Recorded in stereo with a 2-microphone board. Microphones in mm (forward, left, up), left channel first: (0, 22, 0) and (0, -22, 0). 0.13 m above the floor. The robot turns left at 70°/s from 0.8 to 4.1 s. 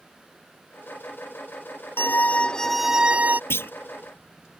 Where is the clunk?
65° left (ahead or behind); by 3.7 s 55° left (ahead or behind).